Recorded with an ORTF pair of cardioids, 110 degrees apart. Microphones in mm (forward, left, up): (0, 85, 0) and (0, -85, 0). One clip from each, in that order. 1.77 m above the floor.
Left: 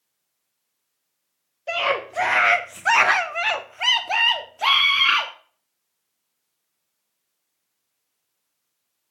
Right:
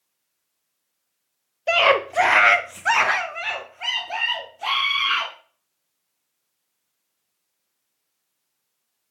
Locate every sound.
1.7 s a scream: 40° right, 1.2 m; by 5.3 s 70° left, 1.8 m